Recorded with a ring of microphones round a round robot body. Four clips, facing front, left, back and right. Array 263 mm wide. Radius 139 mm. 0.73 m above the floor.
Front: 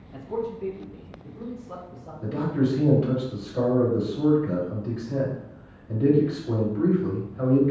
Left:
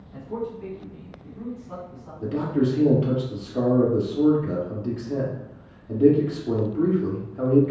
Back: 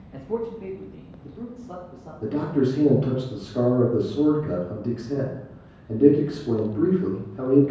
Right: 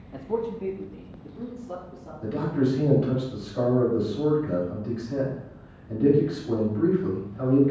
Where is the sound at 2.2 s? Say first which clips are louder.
Left 2 dB, back 2 dB; 135° left, 1.9 m.